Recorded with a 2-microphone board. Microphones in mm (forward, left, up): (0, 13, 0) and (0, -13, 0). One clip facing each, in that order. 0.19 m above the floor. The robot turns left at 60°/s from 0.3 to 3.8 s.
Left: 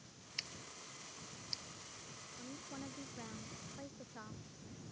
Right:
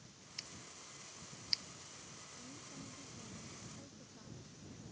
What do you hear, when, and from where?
0.4 s scissors: 25° left (ahead or behind); by 1.6 s 45° right (ahead or behind)
2.4 s a woman speaking: 145° left; by 4.4 s 60° left